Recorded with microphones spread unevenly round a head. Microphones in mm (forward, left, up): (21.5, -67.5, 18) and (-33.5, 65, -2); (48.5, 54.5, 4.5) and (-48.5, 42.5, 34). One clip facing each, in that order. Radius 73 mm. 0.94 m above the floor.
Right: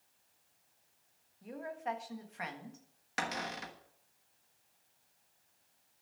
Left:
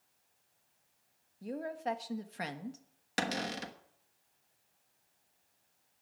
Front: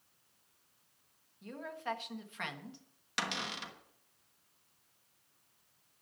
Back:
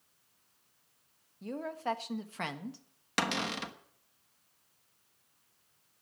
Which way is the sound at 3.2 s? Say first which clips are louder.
Left 3 dB, back 6 dB; 150° left.